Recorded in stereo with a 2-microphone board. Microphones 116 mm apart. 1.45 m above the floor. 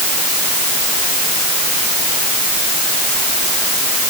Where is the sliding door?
No sliding door in this recording.